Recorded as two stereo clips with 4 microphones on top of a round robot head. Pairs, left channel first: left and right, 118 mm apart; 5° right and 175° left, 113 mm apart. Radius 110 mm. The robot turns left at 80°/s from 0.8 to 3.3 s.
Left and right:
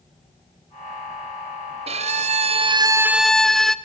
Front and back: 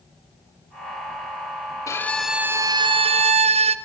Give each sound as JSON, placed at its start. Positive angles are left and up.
{"t": 1.9, "sound": "a violin", "azimuth_deg": -65, "distance_m": 0.5}